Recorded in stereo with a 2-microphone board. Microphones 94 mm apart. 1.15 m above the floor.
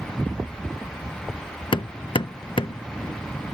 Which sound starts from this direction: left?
Hammering, at 1.7 s.